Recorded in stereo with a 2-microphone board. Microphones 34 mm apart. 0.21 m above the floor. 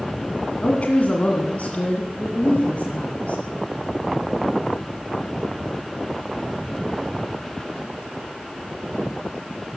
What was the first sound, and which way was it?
A woman speaking, 40° left (ahead or behind).